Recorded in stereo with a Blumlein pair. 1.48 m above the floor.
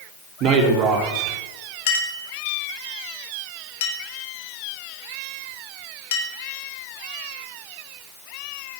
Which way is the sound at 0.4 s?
35° right.